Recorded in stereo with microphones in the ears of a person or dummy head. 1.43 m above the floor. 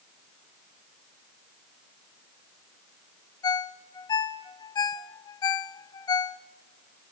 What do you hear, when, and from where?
3.4 s a ringtone: 25° left (ahead or behind), 0.6 m